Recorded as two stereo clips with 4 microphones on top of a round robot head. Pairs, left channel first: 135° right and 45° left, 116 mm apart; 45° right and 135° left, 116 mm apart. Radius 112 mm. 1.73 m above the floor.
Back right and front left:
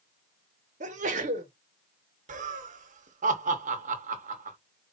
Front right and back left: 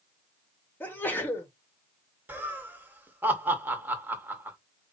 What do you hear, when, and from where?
0.8 s a sneeze: 30° left, 1.2 m
2.3 s laughter: 60° left, 1.2 m